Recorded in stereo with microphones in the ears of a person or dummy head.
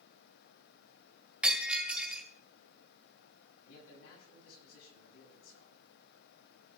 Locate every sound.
1.4 s breaking glass: centre (ahead or behind), 2.5 m
3.6 s a man speaking: 80° left, 7 m